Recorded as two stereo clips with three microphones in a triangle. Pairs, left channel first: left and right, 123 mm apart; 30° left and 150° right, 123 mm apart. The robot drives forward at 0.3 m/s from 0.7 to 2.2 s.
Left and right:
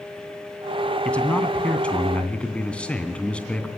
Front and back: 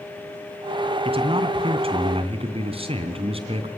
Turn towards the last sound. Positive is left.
turn(degrees=170)